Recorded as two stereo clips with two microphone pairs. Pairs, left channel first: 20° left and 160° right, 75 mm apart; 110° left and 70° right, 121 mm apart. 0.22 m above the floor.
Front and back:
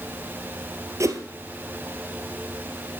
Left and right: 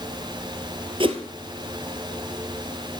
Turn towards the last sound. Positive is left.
turn(degrees=-115)